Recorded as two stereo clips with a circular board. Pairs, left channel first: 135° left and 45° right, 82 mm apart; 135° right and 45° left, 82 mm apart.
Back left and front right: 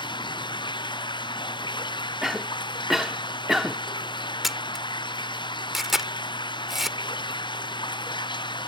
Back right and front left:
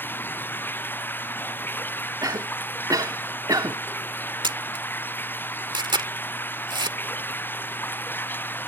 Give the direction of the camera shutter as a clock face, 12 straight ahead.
11 o'clock.